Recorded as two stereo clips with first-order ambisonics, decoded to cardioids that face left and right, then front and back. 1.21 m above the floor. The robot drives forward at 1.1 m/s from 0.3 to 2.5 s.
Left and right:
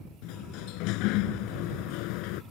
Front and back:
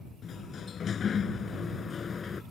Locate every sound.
0.2 s a sliding door: 65° left; by 2.4 s 70° left